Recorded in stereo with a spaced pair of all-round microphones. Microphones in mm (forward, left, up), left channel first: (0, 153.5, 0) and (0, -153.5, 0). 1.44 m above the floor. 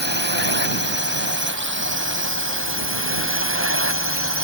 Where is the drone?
35° right (ahead or behind); by 4.5 s 45° right (ahead or behind).